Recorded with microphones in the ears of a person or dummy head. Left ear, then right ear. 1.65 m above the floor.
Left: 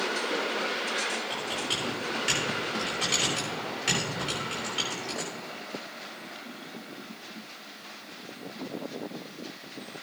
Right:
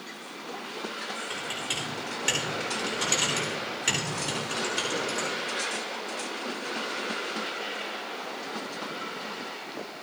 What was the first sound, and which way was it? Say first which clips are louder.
Typing on a keyboard: left 1 dB; 25° right (ahead or behind).